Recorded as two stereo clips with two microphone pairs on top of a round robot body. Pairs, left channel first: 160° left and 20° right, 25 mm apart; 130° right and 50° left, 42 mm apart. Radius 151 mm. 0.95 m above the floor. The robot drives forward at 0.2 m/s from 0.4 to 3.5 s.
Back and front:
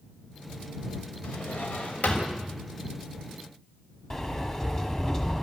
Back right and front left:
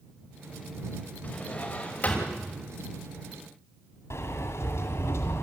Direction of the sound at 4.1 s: 135° right.